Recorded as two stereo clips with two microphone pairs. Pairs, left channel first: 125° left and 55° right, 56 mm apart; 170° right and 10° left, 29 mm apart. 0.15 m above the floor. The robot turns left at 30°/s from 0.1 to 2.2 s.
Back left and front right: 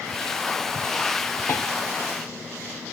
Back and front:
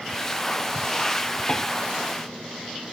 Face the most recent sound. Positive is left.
turn(degrees=130)